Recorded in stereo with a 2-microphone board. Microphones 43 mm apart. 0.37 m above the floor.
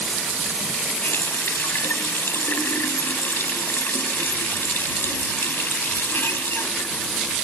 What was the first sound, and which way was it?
A running tap, 70° left (ahead or behind).